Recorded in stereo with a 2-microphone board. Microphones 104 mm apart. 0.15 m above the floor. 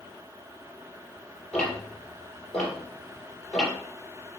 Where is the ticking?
Centre (ahead or behind), 3 m.